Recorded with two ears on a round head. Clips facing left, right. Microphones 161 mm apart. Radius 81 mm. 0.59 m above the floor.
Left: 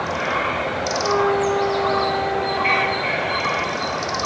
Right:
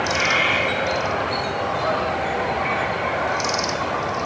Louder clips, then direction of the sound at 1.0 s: Left 6 dB; 75° left (ahead or behind).